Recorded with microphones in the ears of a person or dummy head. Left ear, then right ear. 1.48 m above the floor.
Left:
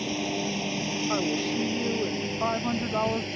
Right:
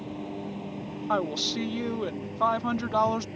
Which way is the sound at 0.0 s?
80° left.